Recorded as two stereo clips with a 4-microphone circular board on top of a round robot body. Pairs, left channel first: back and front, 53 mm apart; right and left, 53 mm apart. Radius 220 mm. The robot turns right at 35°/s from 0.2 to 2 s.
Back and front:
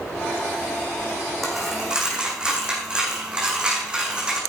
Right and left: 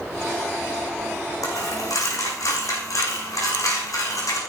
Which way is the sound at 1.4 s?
95° right.